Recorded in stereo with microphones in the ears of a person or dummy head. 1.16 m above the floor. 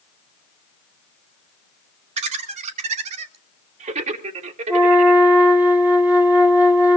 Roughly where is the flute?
Centre.